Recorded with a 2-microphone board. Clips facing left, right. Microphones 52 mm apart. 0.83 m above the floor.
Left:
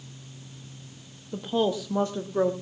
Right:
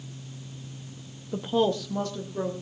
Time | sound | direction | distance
1.3 | a woman speaking | 15° right (ahead or behind) | 0.9 m